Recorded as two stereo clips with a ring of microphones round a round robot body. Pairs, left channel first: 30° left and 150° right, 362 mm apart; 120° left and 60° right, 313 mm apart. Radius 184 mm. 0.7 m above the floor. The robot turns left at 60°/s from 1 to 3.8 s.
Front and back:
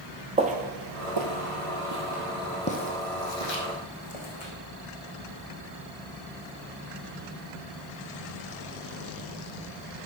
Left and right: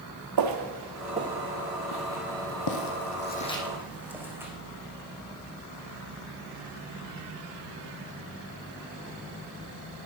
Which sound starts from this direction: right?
Footsteps, at 0.4 s.